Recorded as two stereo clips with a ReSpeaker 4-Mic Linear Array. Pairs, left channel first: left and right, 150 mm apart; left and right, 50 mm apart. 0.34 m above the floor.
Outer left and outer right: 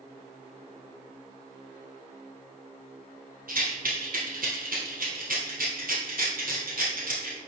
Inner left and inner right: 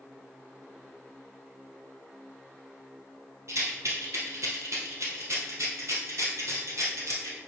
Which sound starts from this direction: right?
A rattle, at 3.5 s.